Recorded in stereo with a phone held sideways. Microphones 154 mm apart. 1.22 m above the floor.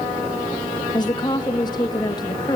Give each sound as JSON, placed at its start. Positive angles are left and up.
{"t": 0.9, "sound": "a woman speaking", "side_deg": 25, "distance_m": 2.5}